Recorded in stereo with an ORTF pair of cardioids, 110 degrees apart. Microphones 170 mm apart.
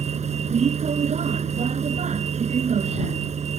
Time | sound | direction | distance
0.0 | a vehicle | 40° right | ?